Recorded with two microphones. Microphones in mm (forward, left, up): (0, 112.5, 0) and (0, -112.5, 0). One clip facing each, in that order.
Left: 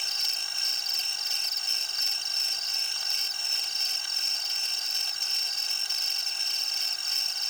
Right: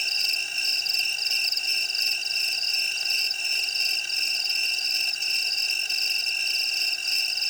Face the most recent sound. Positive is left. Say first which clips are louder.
# right 3 dB
turn(degrees=-25)  # may be behind; listen again after turning